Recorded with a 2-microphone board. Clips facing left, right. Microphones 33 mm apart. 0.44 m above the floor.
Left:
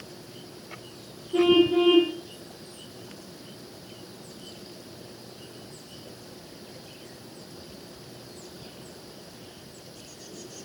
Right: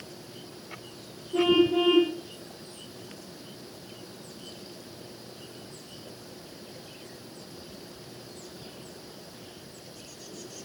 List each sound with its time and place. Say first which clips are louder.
1.3 s a car horn: left 2 dB; 50° left (ahead or behind), 10 m